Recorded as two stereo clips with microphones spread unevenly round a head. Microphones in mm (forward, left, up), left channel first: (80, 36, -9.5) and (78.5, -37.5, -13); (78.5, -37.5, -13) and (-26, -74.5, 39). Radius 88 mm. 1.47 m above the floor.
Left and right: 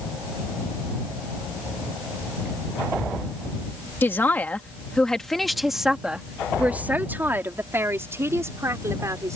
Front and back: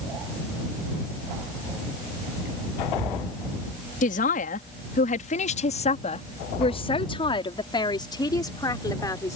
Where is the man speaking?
30° left; by 9.4 s 45° right.